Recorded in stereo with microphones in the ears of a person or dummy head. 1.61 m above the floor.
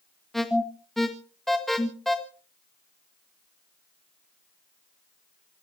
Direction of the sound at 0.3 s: Centre (ahead or behind).